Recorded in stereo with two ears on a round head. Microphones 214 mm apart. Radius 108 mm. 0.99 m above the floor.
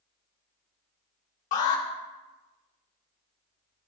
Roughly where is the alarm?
Left.